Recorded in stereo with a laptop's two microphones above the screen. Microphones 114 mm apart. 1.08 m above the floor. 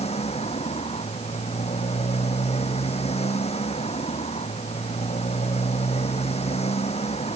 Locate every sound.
0.0 s a motorcycle: 65° left (ahead or behind)